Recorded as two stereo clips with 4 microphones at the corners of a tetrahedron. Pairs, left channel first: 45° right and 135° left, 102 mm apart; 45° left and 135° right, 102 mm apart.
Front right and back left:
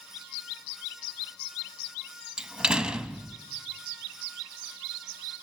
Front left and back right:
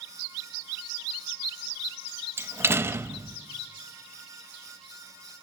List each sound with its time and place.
2.4 s a door slam: 155° right, 0.7 m